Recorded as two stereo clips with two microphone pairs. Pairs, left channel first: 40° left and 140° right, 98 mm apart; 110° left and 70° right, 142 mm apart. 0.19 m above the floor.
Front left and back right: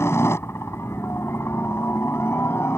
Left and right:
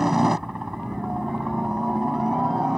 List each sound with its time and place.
0.0 s a helicopter: 20° left